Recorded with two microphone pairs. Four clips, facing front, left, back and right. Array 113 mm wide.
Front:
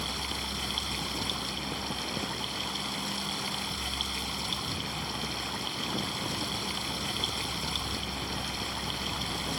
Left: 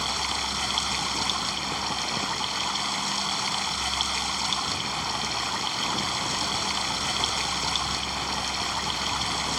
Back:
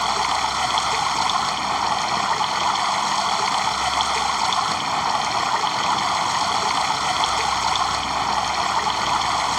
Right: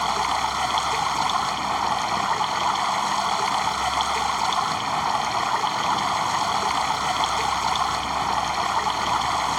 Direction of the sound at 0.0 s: 150° right.